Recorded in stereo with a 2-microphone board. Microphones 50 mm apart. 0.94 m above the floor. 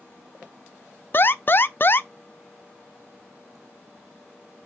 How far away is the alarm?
About 0.5 m.